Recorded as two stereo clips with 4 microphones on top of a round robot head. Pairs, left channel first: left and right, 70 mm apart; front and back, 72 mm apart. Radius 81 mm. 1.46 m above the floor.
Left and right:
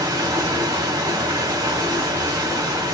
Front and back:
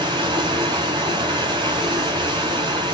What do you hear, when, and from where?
0.0 s running water: 145° right, 4.5 m